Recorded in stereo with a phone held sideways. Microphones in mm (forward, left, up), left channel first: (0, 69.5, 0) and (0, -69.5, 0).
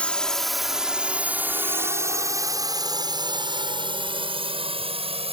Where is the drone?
10° left (ahead or behind); by 5.3 s 45° right (ahead or behind).